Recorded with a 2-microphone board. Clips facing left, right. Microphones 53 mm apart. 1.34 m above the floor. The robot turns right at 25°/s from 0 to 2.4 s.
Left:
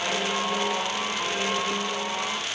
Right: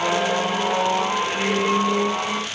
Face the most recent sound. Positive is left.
No sound to turn to.